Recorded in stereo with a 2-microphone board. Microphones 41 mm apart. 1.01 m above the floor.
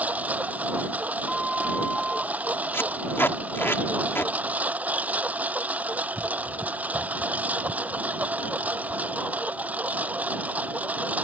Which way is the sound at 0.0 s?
40° right (ahead or behind).